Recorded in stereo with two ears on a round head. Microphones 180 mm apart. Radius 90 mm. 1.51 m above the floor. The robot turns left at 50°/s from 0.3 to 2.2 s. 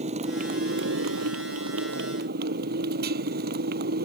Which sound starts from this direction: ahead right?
A motorcycle, at 0.0 s.